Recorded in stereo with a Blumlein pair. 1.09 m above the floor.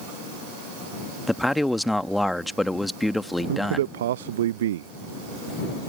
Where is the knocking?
I don't hear knocking.